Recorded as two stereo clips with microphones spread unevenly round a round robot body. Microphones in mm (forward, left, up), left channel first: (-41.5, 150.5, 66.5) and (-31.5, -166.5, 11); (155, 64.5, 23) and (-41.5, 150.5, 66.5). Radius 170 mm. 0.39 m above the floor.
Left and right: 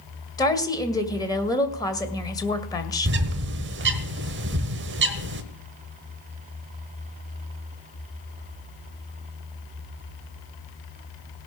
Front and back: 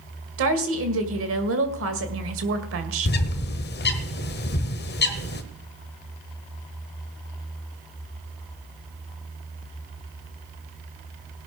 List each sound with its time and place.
0.4 s a woman speaking: 175° left, 1.9 m
3.0 s a bird: 45° right, 1.1 m